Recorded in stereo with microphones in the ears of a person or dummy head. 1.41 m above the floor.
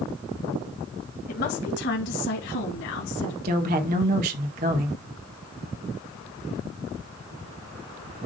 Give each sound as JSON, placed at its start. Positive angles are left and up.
{"t": 1.3, "sound": "a woman speaking", "side_deg": 50, "distance_m": 1.4}
{"t": 3.4, "sound": "a woman speaking", "side_deg": -40, "distance_m": 1.6}